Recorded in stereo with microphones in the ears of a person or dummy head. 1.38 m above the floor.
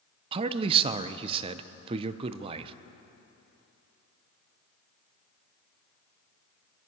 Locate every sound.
0.3 s a man speaking: 30° right (ahead or behind), 0.6 m